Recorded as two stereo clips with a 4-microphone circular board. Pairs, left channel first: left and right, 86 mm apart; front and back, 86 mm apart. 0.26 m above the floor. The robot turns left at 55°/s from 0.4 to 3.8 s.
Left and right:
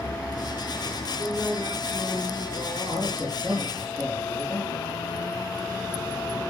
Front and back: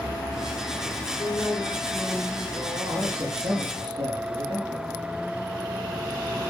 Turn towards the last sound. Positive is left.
turn(degrees=-170)